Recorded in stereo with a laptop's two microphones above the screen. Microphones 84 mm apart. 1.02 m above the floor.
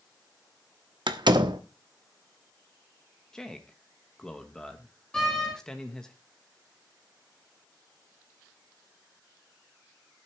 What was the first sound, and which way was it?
A door slam, 75° right (ahead or behind).